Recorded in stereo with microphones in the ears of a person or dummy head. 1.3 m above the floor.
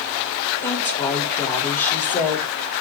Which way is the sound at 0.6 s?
10° left (ahead or behind).